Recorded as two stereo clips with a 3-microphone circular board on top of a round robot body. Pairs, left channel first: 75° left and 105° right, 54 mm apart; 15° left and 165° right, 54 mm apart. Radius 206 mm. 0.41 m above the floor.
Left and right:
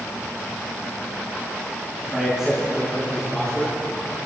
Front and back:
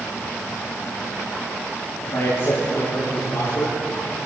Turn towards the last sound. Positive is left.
turn(degrees=-5)